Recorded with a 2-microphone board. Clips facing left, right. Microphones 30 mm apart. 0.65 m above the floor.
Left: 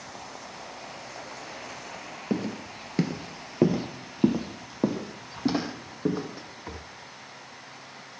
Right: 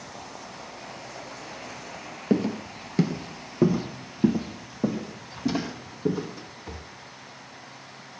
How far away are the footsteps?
About 0.6 m.